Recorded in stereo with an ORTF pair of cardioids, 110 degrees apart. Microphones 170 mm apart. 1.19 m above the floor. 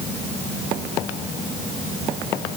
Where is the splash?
I don't hear a splash.